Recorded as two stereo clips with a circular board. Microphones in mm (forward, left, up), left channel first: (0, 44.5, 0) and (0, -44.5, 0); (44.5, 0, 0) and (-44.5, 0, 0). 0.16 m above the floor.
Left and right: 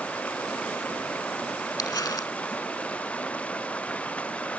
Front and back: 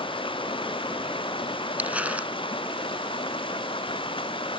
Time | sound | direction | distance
0.0 | running water | 15° left | ?
1.8 | crumpling | 115° left | ?